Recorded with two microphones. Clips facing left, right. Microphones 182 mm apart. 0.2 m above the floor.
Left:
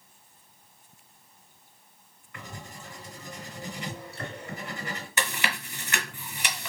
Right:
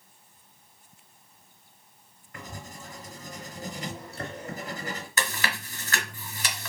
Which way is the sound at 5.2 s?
15° left (ahead or behind).